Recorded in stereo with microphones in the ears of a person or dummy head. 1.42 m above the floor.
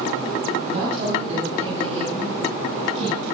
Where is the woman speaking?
45° right (ahead or behind), 9 m; by 3.2 s 40° right (ahead or behind), 12 m.